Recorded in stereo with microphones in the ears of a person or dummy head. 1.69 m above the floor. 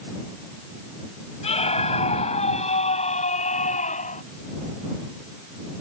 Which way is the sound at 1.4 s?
30° left (ahead or behind).